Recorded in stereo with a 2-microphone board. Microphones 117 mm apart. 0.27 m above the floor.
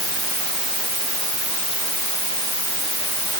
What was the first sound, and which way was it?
Only background noise.